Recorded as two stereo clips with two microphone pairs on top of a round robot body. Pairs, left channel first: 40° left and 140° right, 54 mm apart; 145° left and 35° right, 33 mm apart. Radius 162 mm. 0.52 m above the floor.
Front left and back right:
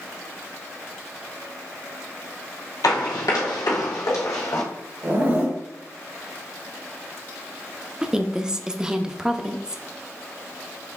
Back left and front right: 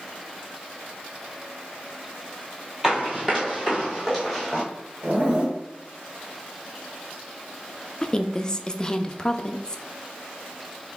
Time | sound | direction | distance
2.8 | running footsteps | 45° left | 0.9 m
5.0 | a zipper | 85° right | 1.4 m
8.0 | a woman speaking | 140° left | 0.7 m